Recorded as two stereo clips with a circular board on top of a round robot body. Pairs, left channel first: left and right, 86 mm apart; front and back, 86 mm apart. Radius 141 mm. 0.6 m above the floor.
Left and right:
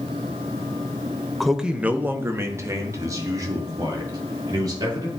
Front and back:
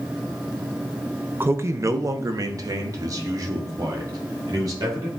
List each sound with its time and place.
1.4 s a man speaking: straight behind, 0.7 m; by 5.1 s 135° right, 2.5 m